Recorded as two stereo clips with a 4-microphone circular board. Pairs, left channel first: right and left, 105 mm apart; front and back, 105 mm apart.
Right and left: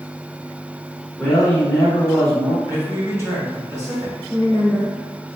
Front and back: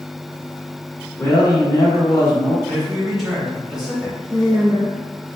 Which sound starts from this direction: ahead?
A man speaking, at 1.2 s.